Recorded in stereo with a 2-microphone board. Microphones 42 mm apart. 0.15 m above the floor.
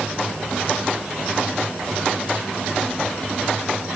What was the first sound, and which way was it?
Only background noise.